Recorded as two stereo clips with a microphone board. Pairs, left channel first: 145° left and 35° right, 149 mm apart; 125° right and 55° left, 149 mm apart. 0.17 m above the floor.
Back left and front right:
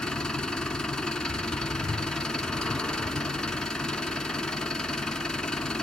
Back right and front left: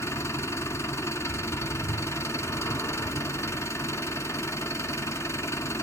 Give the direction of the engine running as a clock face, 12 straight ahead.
5 o'clock.